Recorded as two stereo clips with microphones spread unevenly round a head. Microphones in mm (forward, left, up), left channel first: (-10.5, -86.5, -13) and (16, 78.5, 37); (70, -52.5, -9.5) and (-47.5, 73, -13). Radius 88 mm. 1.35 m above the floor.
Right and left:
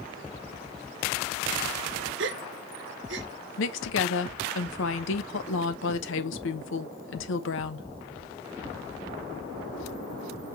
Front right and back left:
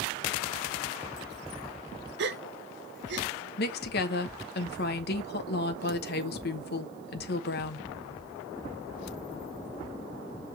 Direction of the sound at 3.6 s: 80° right.